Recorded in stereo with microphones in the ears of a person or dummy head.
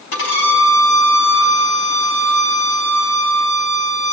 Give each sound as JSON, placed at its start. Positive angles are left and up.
{"t": 0.1, "sound": "a violin", "side_deg": 55, "distance_m": 3.5}